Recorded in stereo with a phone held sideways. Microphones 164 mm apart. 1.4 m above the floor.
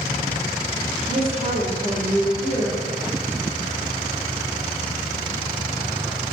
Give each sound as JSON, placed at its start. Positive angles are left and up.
{"t": 1.1, "sound": "a woman speaking", "side_deg": 45, "distance_m": 3.0}